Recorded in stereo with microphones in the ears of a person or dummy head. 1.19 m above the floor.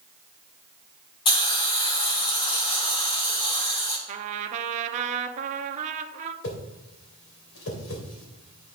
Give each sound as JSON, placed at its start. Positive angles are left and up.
{"t": 1.2, "sound": "a hiss", "side_deg": 30, "distance_m": 1.1}
{"t": 4.1, "sound": "a trumpet", "side_deg": -40, "distance_m": 0.7}
{"t": 6.4, "sound": "a whoosh", "side_deg": 75, "distance_m": 2.5}